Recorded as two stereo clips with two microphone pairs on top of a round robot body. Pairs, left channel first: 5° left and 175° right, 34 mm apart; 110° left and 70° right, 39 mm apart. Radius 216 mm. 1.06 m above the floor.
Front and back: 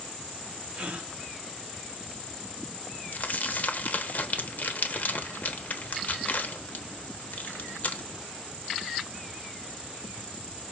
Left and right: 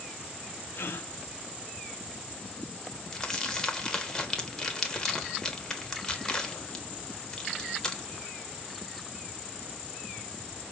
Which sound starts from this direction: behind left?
A gasp, at 0.7 s.